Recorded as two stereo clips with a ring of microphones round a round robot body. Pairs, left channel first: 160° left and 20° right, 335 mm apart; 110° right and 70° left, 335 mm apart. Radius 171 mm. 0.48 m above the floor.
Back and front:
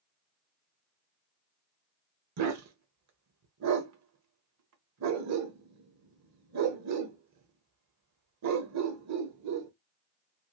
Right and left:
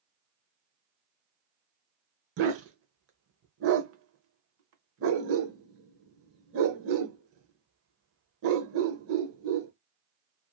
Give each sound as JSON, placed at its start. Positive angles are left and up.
{"t": 2.4, "sound": "a dog barking", "azimuth_deg": 20, "distance_m": 0.8}